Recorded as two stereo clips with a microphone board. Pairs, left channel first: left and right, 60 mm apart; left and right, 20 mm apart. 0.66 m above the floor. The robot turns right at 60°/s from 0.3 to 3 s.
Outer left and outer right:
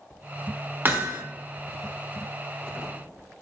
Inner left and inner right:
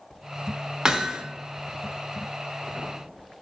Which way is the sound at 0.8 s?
35° right (ahead or behind).